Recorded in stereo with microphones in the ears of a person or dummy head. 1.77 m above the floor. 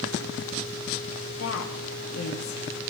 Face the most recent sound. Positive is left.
turn(degrees=75)  # may be behind; listen again after turning